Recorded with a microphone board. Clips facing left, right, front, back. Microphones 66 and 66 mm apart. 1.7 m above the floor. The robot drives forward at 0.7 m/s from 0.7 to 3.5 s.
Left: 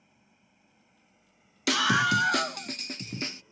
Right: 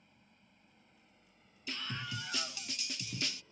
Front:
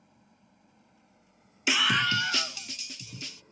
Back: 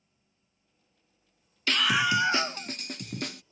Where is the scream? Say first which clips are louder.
Left 19 dB, back 1 dB; 75° left; by 3.4 s 150° left.